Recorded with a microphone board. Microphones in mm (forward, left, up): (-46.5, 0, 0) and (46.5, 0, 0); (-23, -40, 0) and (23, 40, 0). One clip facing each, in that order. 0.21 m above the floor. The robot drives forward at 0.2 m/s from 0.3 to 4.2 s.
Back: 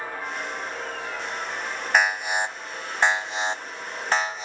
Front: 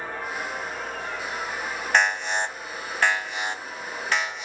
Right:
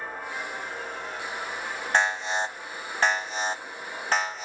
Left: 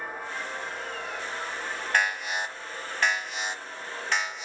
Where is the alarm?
100° right, 0.8 m; by 4.5 s 145° right, 0.9 m.